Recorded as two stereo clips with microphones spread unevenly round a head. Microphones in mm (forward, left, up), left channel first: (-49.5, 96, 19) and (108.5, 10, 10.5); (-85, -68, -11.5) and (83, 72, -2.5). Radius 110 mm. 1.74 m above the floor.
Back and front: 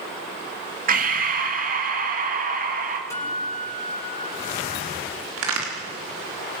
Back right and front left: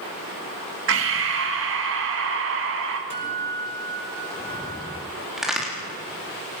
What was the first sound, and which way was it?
Breathing, 10° left.